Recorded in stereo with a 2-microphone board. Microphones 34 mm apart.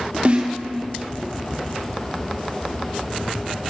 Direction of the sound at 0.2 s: 45° right (ahead or behind).